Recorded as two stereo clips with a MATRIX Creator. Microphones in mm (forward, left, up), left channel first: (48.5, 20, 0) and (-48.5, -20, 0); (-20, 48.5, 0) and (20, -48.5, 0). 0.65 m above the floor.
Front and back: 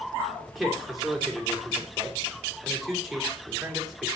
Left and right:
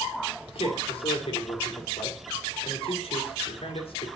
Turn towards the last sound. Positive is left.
turn(degrees=115)